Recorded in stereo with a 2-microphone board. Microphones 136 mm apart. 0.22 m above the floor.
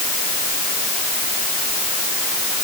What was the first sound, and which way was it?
Only background noise.